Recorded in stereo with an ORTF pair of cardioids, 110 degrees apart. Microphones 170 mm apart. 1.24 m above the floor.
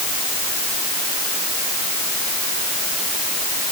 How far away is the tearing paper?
No tearing paper in this recording.